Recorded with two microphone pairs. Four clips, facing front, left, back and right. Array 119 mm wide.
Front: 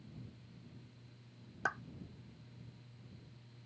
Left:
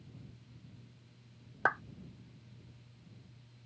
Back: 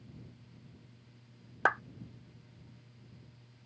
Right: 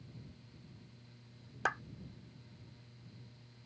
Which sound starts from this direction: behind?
A clap, at 1.6 s.